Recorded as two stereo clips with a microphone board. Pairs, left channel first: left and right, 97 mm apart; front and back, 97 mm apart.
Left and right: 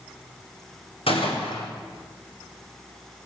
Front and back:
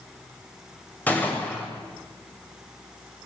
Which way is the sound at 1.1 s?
75° left.